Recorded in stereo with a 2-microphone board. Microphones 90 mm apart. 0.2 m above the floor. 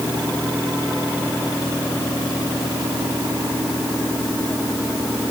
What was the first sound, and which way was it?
Only background noise.